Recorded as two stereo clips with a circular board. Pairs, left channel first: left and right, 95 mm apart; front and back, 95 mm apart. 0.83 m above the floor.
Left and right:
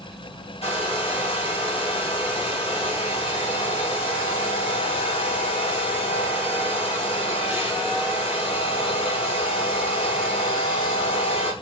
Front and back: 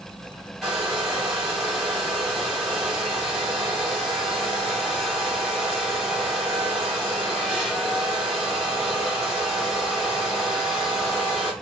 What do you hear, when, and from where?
0.6 s a hair dryer: 90° left, 3 m